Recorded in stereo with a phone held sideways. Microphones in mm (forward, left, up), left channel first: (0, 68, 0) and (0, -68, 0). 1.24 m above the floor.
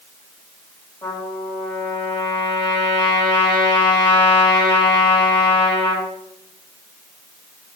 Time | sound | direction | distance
1.0 | a trumpet | 40° left (ahead or behind) | 2.5 m